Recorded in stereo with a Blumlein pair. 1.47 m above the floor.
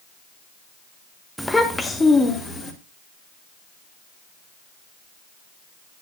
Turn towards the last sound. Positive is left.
turn(degrees=15)